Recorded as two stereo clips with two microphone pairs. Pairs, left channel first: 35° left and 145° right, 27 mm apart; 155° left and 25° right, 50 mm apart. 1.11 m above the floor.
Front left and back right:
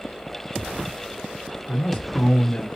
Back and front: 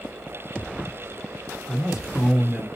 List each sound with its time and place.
1.7 s a man speaking: 55° left, 1.0 m